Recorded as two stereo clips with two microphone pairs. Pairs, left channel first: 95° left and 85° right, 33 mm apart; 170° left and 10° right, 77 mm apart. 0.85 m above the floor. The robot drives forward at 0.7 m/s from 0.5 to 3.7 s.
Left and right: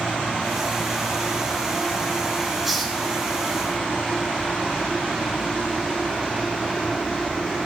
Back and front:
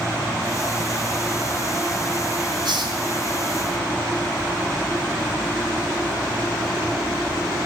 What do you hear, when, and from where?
2.6 s a hiss: 5° right, 4.5 m